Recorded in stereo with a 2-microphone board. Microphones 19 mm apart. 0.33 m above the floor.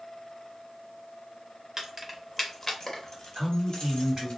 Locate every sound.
1.8 s keys jangling: 25° right (ahead or behind), 0.7 m; by 4.3 s 60° left (ahead or behind), 1.4 m
3.4 s a man speaking: 20° right (ahead or behind), 2.0 m